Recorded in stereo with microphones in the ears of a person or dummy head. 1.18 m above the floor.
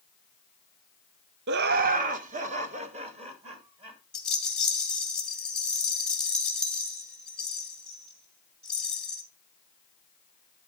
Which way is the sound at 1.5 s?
55° right (ahead or behind).